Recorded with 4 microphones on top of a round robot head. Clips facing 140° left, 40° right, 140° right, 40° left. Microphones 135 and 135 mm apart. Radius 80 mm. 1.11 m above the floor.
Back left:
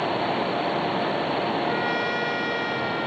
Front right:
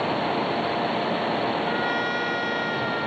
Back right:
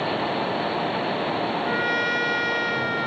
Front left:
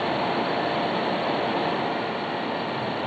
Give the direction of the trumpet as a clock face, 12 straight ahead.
5 o'clock.